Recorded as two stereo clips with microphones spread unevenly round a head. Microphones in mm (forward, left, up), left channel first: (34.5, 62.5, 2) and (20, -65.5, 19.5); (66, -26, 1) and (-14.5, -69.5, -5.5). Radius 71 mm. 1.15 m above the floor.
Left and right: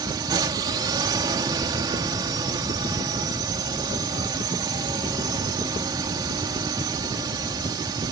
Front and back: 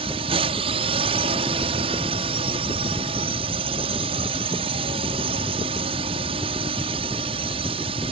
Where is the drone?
160° right.